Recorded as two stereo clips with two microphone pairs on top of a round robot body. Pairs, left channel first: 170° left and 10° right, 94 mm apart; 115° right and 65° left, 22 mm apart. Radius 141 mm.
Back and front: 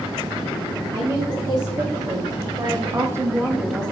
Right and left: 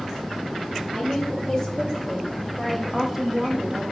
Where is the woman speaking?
50° right, 2 m; by 3.8 s 85° left, 0.9 m.